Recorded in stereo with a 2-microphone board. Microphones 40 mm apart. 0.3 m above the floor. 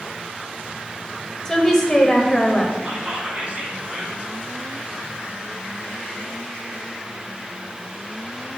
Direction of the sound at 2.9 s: 30° right (ahead or behind).